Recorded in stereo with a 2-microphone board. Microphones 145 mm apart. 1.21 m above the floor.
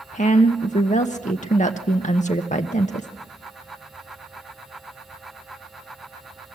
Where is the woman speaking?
55° left (ahead or behind), 0.9 m.